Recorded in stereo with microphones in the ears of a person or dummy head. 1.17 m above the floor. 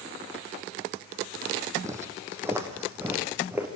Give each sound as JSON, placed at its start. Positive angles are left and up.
{"t": 1.8, "sound": "footsteps", "side_deg": -15, "distance_m": 2.5}